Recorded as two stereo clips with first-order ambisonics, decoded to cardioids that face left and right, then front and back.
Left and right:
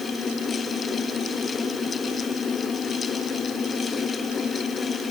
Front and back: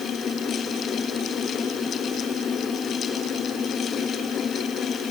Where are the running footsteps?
I don't hear running footsteps.